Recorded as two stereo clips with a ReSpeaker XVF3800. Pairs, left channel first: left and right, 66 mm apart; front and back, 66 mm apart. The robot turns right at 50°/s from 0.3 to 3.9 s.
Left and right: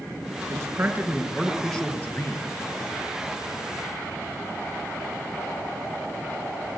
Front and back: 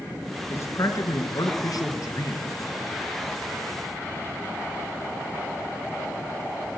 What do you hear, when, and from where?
0.5 s a man speaking: 45° right, 4 m; by 2.6 s 60° left, 4 m